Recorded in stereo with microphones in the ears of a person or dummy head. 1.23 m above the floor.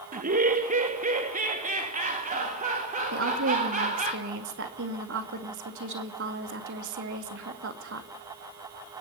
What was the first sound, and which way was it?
Laughter, 45° right (ahead or behind).